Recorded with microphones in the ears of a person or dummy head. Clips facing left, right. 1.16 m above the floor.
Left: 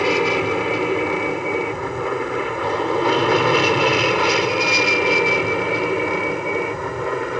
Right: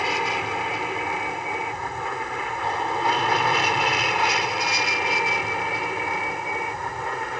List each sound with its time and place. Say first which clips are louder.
0.0 s an aircraft: left 9 dB; 65° left (ahead or behind); by 7.4 s 70° left (ahead or behind)